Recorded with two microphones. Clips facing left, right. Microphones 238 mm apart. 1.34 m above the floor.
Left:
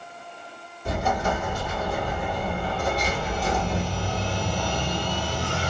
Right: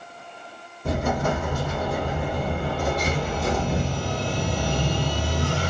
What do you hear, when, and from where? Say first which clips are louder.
0.8 s an explosion: right 2 dB; 70° right (ahead or behind), 1.3 m